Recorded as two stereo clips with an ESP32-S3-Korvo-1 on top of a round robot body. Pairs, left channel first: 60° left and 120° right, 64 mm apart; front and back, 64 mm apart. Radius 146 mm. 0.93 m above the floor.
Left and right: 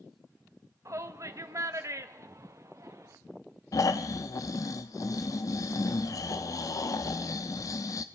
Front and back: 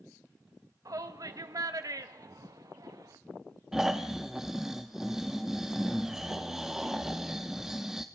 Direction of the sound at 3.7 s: 95° left.